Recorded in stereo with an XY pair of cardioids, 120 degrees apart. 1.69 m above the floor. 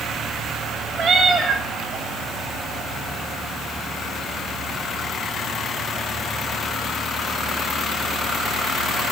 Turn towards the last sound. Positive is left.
turn(degrees=-70)